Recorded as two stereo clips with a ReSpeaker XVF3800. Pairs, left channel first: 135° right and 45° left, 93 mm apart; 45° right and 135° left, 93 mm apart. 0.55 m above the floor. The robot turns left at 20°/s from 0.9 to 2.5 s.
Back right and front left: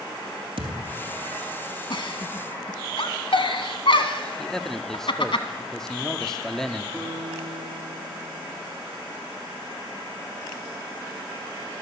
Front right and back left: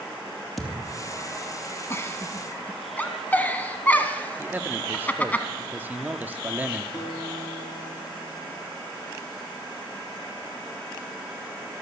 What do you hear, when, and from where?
0.6 s a thud: 45° left, 2.5 m
1.9 s a giggle: 105° right, 1.1 m; by 5.4 s 115° right, 1.1 m
4.4 s a man speaking: 155° left, 0.6 m
6.9 s a guitar: 60° right, 4 m